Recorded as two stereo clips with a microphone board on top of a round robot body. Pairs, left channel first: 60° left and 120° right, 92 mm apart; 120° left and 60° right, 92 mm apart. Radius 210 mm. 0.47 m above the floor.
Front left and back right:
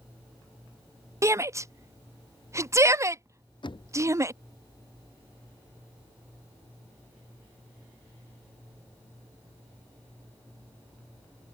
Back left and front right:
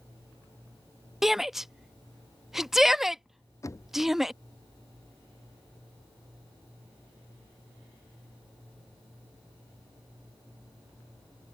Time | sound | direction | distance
1.2 | a shout | 145° right | ?
3.6 | knocking | 70° left | ?